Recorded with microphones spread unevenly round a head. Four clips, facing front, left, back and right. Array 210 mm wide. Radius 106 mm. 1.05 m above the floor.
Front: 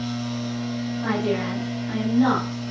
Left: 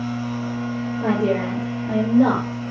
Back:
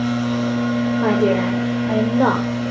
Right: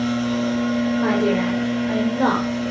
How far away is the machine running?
About 1.4 m.